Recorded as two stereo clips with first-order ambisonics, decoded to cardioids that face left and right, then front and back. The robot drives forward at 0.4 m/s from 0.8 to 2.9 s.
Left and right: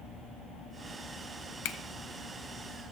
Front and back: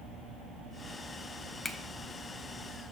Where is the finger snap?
80° left, 0.8 m.